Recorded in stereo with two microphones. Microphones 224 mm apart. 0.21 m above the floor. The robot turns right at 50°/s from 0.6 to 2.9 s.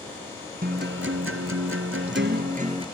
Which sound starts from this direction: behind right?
A guitar, at 0.6 s.